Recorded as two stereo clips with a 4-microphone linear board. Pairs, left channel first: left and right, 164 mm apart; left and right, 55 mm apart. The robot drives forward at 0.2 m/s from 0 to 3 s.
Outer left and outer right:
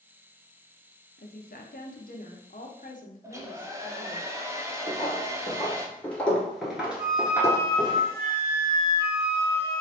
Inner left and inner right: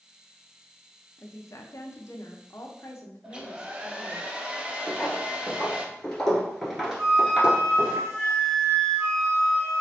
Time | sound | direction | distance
1.2 | a woman speaking | 75° left (ahead or behind) | 0.8 m
3.2 | a hair dryer | 20° right (ahead or behind) | 0.6 m
4.9 | footsteps | 30° left (ahead or behind) | 1.8 m
7.0 | a flute | 65° right (ahead or behind) | 1.9 m